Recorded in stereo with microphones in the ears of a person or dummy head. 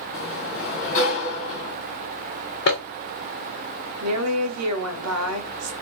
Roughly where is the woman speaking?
Right.